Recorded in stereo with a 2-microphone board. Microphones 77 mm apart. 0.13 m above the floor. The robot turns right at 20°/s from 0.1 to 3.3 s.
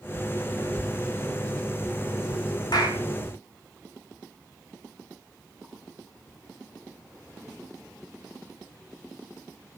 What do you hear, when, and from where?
2.7 s a clap: 75° left (ahead or behind), 9 m; by 3.0 s 70° left (ahead or behind), 9 m